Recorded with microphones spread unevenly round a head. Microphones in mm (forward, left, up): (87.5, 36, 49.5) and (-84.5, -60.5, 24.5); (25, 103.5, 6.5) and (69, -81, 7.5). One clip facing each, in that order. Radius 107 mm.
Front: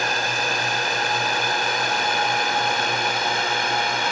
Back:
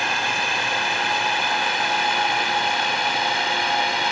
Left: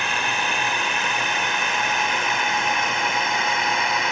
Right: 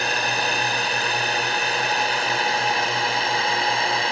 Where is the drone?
25° right; by 4.1 s 20° right.